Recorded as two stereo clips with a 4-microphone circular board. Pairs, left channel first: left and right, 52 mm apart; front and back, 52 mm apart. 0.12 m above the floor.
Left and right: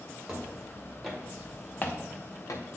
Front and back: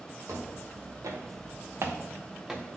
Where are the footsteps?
165° right, 2.5 m; by 2.7 s 90° left, 1.4 m.